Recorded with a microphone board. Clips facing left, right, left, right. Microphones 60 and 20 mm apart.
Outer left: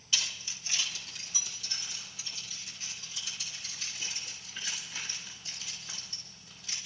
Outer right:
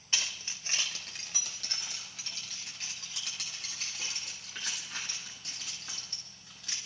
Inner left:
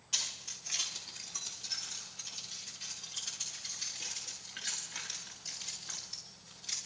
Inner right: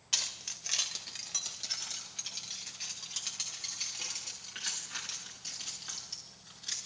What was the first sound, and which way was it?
Keys jangling, 40° right (ahead or behind).